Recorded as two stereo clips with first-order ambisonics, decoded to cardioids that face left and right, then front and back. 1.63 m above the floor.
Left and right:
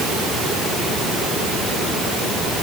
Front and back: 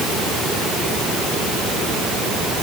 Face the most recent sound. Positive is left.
No sound to turn to.